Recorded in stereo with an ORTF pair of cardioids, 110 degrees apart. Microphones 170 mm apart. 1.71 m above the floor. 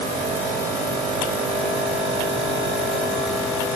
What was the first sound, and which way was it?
Only background noise.